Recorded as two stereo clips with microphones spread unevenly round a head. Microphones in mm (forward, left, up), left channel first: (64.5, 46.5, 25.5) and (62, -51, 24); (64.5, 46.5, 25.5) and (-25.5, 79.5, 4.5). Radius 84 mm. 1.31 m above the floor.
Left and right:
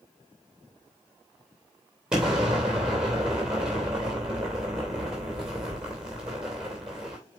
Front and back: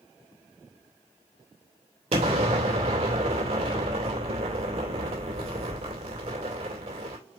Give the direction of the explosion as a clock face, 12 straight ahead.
6 o'clock.